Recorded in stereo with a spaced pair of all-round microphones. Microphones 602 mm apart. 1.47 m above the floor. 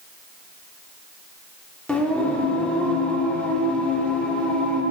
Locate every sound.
1.9 s singing: centre (ahead or behind), 1.4 m